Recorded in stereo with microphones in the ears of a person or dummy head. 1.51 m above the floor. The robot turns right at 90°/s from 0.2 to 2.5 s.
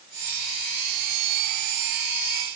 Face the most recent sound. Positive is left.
No sound to turn to.